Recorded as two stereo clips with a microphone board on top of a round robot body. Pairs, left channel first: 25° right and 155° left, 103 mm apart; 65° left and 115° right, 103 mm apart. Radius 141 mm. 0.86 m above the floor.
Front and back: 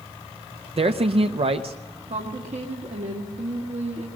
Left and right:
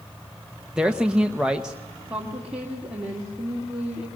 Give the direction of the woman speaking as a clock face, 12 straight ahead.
6 o'clock.